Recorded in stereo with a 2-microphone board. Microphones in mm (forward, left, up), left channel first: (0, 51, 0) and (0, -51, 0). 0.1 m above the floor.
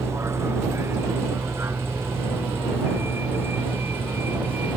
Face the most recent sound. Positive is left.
turn(degrees=-20)  # may be behind; listen again after turning